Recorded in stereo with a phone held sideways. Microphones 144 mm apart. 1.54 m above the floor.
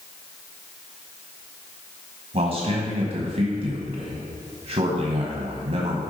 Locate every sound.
2.3 s a man speaking: 55° right (ahead or behind), 1.1 m